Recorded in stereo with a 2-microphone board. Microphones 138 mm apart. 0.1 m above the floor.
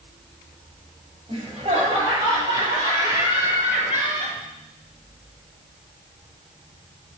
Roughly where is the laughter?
Right.